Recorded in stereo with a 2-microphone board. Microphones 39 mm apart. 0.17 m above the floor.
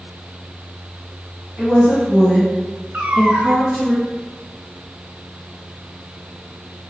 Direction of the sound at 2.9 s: 45° right (ahead or behind).